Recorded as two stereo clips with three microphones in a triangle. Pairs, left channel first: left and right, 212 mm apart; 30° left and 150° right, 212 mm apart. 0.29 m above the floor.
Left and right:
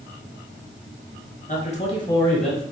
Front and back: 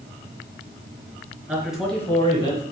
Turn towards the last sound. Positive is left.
turn(degrees=-10)